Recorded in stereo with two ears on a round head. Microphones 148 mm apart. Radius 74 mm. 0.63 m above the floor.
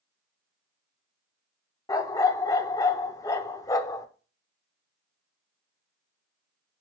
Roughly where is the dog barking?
Centre.